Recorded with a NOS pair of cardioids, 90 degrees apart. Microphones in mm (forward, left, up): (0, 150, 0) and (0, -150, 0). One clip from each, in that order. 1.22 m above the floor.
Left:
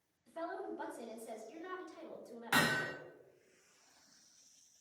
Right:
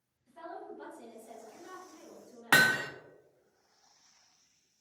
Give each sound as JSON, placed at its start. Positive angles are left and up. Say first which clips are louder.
{"t": 0.3, "sound": "a woman speaking", "louder": "left 2 dB", "azimuth_deg": 50, "distance_m": 2.0}
{"t": 2.5, "sound": "hammering", "louder": "right 8 dB", "azimuth_deg": -50, "distance_m": 0.6}